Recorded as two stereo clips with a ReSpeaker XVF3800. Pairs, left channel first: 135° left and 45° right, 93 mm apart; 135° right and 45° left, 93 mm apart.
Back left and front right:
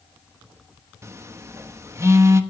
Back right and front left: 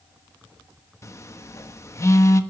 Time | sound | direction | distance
1.0 | a phone buzzing | 90° right | 1.1 m